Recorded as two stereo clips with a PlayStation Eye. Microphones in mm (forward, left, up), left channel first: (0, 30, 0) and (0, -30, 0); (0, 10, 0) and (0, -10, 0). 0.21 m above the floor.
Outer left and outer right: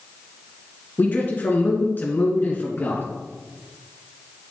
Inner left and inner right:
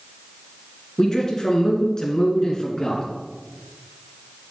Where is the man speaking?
35° left (ahead or behind), 2.5 m.